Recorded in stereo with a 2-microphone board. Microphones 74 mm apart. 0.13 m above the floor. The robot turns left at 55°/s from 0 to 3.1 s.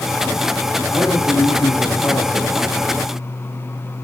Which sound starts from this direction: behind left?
A man speaking, at 0.9 s.